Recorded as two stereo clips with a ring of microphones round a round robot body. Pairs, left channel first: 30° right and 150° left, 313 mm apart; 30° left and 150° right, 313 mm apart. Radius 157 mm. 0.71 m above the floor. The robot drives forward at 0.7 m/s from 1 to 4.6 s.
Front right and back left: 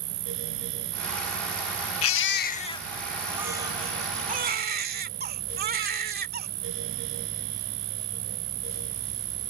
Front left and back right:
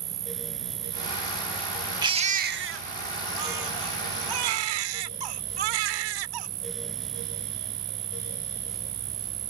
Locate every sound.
0.0 s an insect: 160° left
2.0 s a baby crying: 75° right; by 6.5 s 150° right